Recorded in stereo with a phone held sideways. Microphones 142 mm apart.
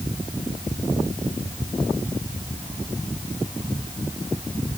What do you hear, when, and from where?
Only background noise.